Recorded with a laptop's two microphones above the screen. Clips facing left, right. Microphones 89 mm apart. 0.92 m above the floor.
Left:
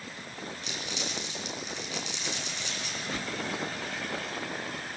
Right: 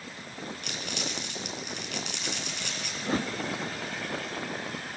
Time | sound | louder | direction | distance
0.6 | crumpling | right 1 dB | 60° right (ahead or behind) | 4 m
3.0 | a whoosh | right 8 dB | 35° right (ahead or behind) | 0.8 m